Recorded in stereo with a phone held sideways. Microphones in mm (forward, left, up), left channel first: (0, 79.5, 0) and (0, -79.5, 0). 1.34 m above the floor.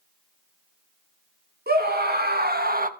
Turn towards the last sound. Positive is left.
turn(degrees=-60)  # may be behind; listen again after turning